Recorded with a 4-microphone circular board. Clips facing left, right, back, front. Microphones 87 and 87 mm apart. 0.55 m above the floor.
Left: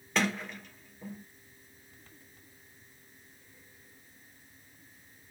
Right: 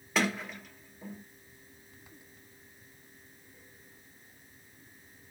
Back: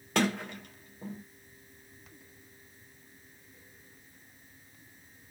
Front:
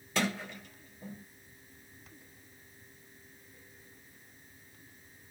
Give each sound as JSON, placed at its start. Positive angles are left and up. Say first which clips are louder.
{"t": 0.1, "sound": "a sliding door", "louder": "even, back 4 dB", "azimuth_deg": -175, "distance_m": 1.0}